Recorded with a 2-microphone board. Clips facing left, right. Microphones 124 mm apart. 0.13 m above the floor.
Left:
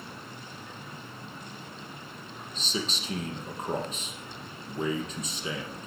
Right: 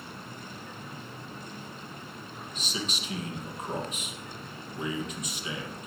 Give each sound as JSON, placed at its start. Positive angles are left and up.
{"t": 2.5, "sound": "a man speaking", "side_deg": 35, "distance_m": 3.0}